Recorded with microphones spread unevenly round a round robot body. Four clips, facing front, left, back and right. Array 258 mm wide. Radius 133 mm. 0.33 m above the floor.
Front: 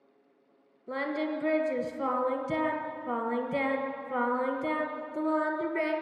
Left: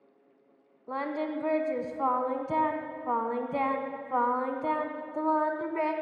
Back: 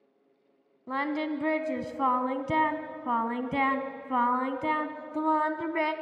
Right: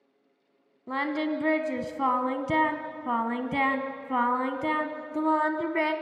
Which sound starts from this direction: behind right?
Singing, at 0.9 s.